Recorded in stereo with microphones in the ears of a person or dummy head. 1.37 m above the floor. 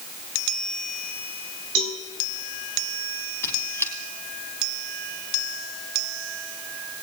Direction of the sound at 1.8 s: 70° right (ahead or behind).